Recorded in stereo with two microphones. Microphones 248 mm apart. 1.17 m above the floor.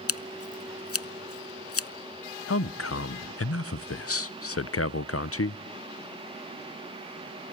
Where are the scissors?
65° left (ahead or behind), 0.6 m.